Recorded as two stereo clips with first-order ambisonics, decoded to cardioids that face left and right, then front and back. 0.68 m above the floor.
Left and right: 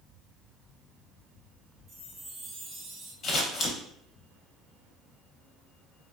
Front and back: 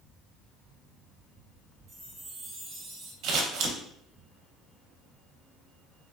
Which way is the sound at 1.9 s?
145° right.